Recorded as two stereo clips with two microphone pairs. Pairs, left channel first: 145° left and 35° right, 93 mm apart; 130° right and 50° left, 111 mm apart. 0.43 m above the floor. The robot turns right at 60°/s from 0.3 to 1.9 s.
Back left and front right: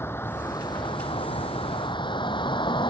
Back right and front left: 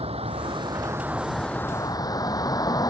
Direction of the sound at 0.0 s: 80° left.